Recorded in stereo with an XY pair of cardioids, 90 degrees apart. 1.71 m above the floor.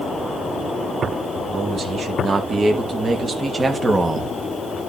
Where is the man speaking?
55° right, 3 m; by 4.3 s 25° right, 1.5 m.